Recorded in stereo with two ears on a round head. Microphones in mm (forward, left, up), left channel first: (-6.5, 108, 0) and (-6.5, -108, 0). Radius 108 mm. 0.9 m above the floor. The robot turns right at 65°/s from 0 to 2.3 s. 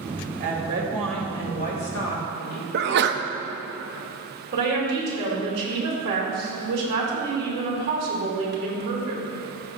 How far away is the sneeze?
About 0.7 m.